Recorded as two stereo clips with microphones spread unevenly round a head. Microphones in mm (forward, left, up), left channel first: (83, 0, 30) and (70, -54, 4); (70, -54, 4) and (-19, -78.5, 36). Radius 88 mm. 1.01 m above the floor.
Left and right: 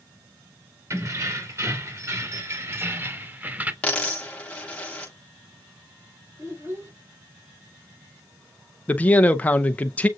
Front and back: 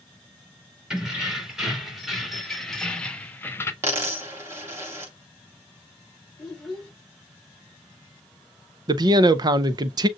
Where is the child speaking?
70° right, 4.5 m.